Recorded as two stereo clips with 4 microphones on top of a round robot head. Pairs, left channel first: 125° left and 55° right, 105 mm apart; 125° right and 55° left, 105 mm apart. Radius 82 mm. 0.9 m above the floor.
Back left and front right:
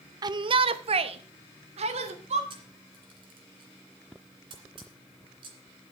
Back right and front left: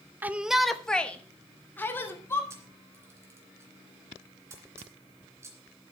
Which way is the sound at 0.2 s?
15° right.